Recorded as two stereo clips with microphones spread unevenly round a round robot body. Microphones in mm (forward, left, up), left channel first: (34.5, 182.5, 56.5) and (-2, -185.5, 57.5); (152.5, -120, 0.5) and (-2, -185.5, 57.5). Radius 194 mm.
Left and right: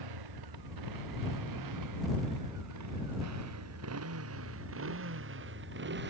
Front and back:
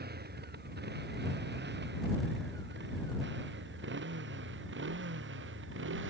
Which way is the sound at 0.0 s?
130° right.